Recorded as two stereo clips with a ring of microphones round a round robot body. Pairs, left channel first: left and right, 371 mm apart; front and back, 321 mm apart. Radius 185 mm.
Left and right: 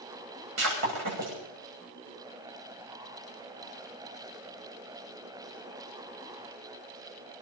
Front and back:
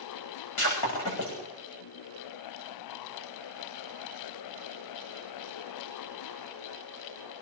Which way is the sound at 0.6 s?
40° right.